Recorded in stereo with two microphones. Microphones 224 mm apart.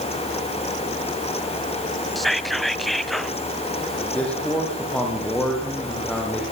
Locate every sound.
2.1 s whispering: centre (ahead or behind), 1.1 m
4.0 s a man speaking: 5° left (ahead or behind), 9.5 m